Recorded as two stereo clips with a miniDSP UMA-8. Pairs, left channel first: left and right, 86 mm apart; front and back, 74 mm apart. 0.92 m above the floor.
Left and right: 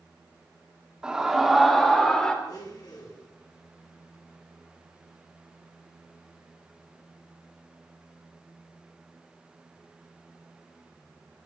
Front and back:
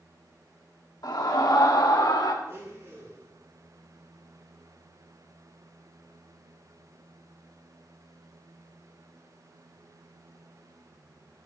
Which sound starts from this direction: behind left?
A blender, at 2.4 s.